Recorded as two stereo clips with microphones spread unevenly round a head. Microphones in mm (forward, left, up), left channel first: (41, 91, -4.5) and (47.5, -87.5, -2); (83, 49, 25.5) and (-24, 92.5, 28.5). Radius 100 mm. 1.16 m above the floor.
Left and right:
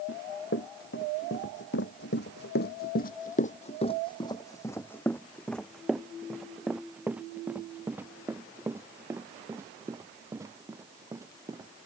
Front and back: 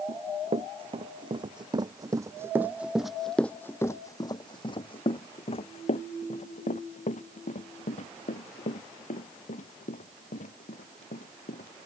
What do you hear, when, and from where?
0.1 s running footsteps: 130° left; by 11.7 s 15° right